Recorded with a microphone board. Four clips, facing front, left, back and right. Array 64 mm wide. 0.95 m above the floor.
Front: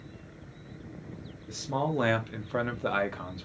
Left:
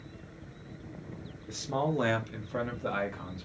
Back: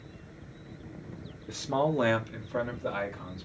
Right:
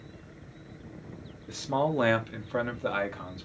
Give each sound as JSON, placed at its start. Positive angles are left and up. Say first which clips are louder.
{"t": 1.5, "sound": "a man speaking", "louder": "right 3 dB, back 3 dB", "azimuth_deg": -150, "distance_m": 0.5}